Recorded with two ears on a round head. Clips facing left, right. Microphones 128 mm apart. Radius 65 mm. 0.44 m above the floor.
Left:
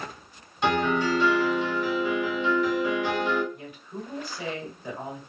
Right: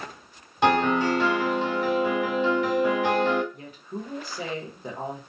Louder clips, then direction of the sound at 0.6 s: Right 3 dB; 50° right (ahead or behind).